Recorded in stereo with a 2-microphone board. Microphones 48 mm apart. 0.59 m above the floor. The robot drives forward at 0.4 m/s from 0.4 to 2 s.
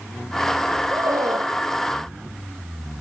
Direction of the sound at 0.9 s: 85° right.